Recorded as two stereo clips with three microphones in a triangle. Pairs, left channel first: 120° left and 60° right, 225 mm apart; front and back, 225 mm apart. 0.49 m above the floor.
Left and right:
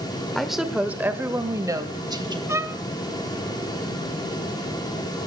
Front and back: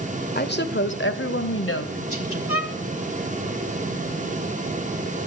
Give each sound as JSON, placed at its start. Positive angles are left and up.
{"t": 0.3, "sound": "a woman speaking", "azimuth_deg": 30, "distance_m": 1.5}
{"t": 2.5, "sound": "a violin", "azimuth_deg": 20, "distance_m": 0.9}